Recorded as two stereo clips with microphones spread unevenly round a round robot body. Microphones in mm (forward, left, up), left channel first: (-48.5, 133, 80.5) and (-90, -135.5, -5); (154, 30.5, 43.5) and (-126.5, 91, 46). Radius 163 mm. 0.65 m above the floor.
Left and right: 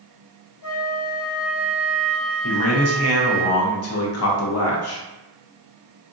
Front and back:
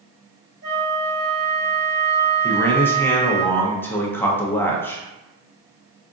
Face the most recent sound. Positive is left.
turn(degrees=65)